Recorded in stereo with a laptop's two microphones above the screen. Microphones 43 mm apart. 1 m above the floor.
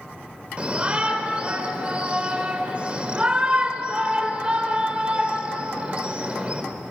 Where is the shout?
25° right (ahead or behind), 4 m.